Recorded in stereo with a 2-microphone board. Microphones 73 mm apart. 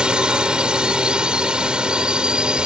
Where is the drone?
10° right (ahead or behind).